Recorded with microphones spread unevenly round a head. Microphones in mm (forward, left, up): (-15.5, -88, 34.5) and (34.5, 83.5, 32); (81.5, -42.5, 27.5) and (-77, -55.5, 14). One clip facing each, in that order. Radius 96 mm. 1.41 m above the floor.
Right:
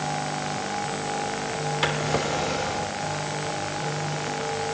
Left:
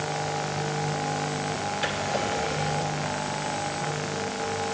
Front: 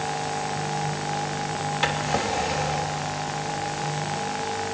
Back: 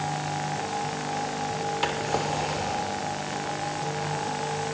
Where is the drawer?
80° right, 3 m.